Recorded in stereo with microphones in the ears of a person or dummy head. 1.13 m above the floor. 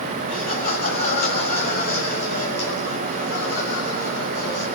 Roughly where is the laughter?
Left.